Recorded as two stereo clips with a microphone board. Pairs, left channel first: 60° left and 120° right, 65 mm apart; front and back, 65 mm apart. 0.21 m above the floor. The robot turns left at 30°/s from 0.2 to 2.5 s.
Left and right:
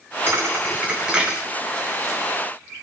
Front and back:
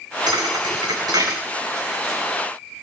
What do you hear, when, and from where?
0.3 s a thud: 170° right, 4 m; by 1.4 s 155° left, 4 m